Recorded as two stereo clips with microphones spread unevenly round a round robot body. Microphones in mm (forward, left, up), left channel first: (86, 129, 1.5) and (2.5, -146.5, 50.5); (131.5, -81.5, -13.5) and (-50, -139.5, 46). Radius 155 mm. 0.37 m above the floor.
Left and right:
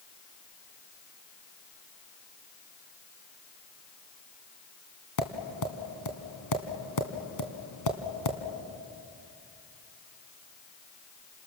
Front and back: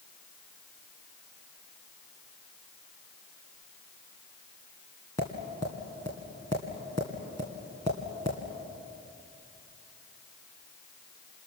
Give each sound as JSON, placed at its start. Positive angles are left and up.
{"t": 5.2, "sound": "tapping", "azimuth_deg": 90, "distance_m": 2.5}